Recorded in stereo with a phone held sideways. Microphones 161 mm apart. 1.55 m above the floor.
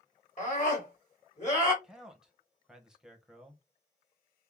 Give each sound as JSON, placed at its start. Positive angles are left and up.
{"t": 0.4, "sound": "a scream", "side_deg": 50, "distance_m": 3.0}
{"t": 1.8, "sound": "a man speaking", "side_deg": -5, "distance_m": 1.1}